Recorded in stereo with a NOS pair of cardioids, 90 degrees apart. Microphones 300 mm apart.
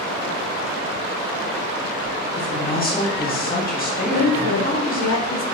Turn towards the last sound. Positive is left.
turn(degrees=60)